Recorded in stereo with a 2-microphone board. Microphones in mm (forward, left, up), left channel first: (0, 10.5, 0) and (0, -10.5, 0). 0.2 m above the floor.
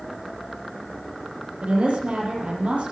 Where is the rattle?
I don't hear a rattle.